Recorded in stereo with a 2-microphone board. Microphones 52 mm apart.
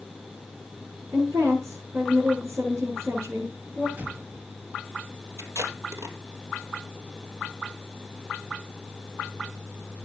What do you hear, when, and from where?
1.1 s a woman speaking: 75° right (ahead or behind), 8 m
4.0 s an explosion: 35° right (ahead or behind), 2.0 m
5.4 s tape being pulled: 75° right (ahead or behind), 3 m